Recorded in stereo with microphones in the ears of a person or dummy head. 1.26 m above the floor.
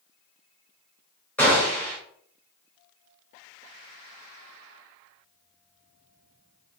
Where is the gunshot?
10° left (ahead or behind), 1.4 m.